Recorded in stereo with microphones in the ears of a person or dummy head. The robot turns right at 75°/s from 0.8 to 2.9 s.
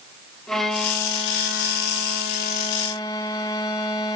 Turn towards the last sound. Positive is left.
turn(degrees=165)